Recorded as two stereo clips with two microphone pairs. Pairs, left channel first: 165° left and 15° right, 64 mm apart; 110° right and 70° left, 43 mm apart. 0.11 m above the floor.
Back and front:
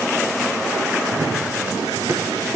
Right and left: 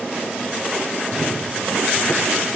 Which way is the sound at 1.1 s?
25° right.